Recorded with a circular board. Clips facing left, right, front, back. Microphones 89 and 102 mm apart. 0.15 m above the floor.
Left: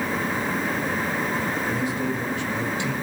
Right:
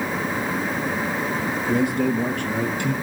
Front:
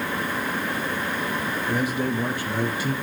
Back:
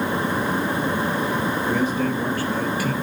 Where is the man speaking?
80° right, 3.5 m; by 3.0 s 60° right, 3.5 m.